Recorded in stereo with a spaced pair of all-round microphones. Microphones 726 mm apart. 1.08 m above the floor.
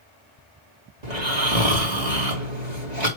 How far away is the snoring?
About 2.5 m.